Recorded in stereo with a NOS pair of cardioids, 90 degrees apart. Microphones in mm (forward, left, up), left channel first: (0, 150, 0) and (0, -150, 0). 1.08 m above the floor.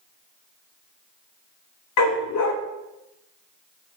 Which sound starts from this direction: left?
A dog barking, at 2.0 s.